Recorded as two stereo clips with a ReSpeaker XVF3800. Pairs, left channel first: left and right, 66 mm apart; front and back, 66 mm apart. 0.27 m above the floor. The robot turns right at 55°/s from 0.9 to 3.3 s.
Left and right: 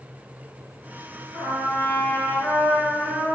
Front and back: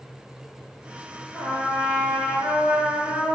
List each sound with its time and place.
1.3 s a trumpet: 80° left, 1.4 m; by 3.4 s 175° right, 1.4 m